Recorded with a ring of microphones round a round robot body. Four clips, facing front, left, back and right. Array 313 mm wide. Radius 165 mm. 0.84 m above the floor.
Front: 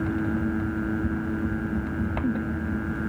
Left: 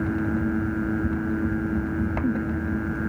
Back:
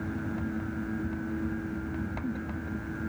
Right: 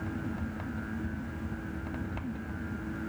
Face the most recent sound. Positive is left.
No sound to turn to.